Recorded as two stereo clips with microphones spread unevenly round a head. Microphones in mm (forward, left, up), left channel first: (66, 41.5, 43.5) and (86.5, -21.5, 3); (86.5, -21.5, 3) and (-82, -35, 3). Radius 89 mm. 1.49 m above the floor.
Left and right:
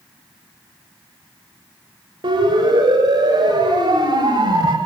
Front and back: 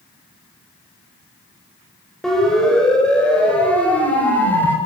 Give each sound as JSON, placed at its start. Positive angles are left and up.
{"t": 2.2, "sound": "a siren", "azimuth_deg": -85, "distance_m": 9.0}